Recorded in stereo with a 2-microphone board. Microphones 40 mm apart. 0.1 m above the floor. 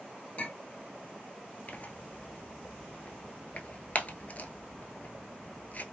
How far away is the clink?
About 1.0 m.